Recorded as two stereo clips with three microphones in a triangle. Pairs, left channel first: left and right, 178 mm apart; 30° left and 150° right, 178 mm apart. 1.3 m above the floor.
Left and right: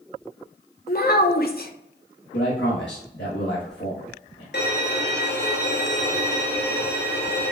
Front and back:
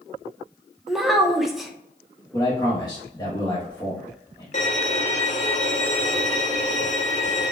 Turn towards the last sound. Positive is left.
turn(degrees=75)